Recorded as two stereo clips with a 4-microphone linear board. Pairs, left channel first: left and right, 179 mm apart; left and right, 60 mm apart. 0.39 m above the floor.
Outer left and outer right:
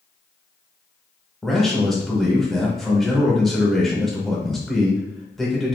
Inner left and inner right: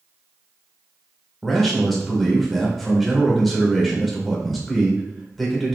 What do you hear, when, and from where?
1.4 s a man speaking: centre (ahead or behind), 0.9 m